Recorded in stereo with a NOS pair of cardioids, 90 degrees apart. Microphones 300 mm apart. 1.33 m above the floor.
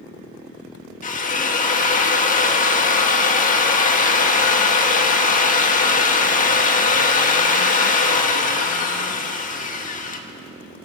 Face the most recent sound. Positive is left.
turn(degrees=30)